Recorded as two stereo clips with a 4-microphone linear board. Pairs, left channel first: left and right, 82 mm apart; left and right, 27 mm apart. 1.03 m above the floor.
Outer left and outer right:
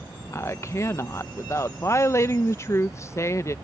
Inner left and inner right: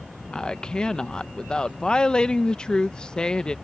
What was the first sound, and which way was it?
A woman speaking, 35° left (ahead or behind).